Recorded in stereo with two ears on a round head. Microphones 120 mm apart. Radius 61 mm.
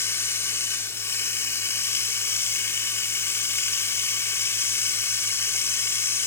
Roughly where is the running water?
Centre.